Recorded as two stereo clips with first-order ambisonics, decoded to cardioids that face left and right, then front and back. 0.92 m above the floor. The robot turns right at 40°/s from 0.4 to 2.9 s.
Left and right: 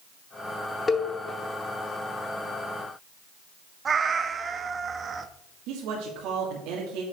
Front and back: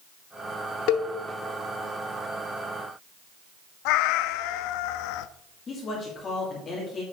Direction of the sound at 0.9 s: 15° left.